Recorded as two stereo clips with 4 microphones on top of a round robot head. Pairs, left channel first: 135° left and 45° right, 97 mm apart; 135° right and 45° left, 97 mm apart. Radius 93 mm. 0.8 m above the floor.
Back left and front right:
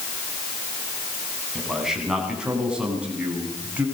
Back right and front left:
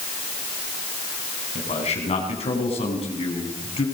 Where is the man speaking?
130° right, 8.5 m; by 3.9 s 120° right, 8.5 m.